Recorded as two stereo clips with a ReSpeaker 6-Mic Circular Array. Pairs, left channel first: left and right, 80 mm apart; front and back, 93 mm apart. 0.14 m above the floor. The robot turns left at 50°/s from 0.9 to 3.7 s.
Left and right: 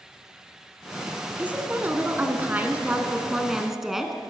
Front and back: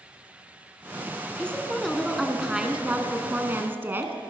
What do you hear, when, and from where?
1.4 s a woman speaking: 55° right, 1.1 m; by 4.2 s 170° right, 1.1 m